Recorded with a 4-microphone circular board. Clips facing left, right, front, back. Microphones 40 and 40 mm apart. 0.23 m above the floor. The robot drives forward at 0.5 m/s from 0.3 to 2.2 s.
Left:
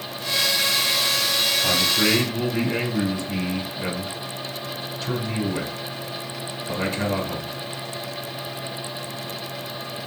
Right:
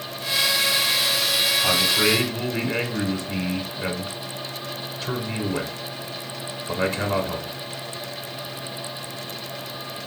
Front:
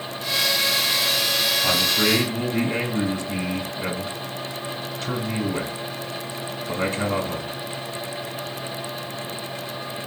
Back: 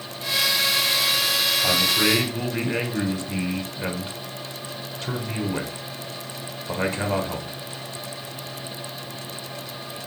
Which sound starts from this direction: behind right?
A man speaking, at 1.6 s.